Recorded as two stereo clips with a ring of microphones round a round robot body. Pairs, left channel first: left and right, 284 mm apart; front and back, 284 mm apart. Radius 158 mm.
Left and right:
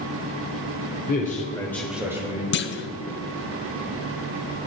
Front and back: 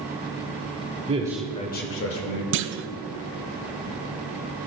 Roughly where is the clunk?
Behind left.